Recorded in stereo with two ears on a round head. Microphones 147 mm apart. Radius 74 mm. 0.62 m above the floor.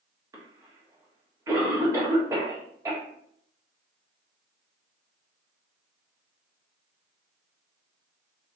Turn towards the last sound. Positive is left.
turn(degrees=-20)  # may be behind; listen again after turning